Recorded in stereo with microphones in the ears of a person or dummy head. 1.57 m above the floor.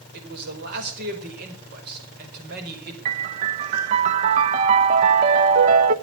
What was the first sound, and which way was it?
A man speaking, 55° right (ahead or behind).